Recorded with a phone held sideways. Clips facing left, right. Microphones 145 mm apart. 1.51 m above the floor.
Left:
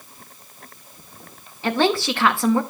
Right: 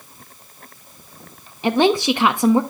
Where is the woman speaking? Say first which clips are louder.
Right 4 dB; 20° right (ahead or behind), 0.6 m.